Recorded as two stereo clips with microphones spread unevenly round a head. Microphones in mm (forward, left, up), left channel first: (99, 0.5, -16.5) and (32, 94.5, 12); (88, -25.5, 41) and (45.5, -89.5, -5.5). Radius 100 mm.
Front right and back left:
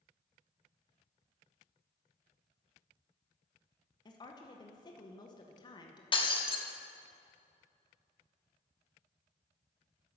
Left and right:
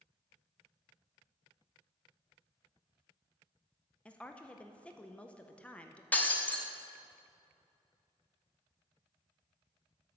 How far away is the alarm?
No alarm in this recording.